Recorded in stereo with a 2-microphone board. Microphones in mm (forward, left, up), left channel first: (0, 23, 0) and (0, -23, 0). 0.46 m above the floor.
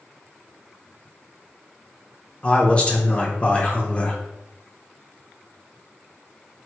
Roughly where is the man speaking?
Left.